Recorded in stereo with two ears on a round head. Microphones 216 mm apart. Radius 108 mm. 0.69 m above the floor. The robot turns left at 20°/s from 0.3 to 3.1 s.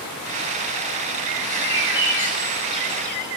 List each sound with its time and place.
1.6 s a bird: 20° right (ahead or behind), 8.5 m; by 3.2 s 10° left (ahead or behind), 8.5 m